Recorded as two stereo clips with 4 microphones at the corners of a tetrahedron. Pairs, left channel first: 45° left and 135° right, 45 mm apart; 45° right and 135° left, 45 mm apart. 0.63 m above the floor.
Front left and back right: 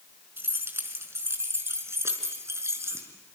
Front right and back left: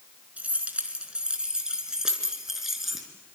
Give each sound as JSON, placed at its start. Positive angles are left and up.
{"t": 0.4, "sound": "keys jangling", "azimuth_deg": -170, "distance_m": 4.5}